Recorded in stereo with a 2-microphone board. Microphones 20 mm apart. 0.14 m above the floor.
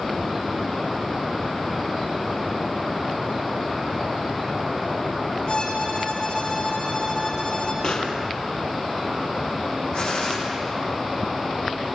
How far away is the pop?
About 3.5 m.